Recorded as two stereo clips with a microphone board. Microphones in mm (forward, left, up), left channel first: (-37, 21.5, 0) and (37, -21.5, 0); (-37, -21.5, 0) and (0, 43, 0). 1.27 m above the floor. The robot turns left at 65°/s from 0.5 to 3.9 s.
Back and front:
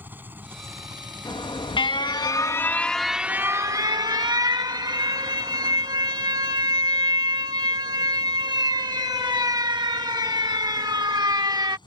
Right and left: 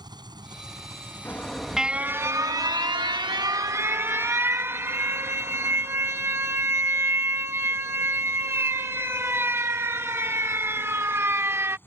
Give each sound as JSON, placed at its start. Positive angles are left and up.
{"t": 0.0, "sound": "an engine running", "azimuth_deg": 40}
{"t": 1.2, "sound": "an alarm", "azimuth_deg": 175}